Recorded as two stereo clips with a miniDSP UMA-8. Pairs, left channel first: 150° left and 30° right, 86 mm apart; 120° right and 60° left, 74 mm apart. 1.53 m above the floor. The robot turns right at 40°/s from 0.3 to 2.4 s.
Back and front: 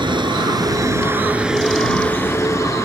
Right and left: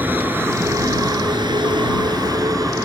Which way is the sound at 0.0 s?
5° right.